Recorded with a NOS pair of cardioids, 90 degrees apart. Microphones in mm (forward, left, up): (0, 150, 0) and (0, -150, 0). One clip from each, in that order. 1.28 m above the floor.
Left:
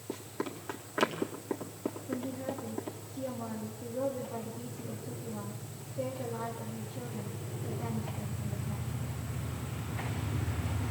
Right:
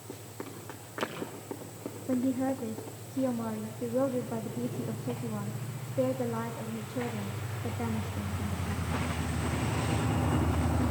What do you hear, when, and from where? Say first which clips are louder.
0.1 s running footsteps: left 5 dB; 35° left, 4.5 m
2.1 s a woman speaking: right 11 dB; 55° right, 3 m